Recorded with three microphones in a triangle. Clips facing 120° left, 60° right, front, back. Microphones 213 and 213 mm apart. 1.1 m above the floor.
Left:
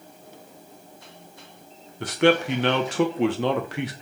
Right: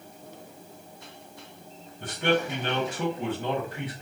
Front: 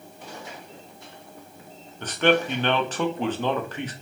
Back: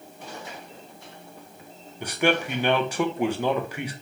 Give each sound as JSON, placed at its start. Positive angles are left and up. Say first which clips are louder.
{"t": 2.0, "sound": "a man speaking", "louder": "left 6 dB, front 3 dB", "azimuth_deg": 100, "distance_m": 0.5}